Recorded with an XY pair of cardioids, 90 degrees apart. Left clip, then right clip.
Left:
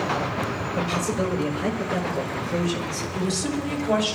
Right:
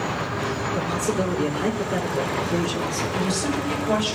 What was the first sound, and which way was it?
A man speaking, 60° right.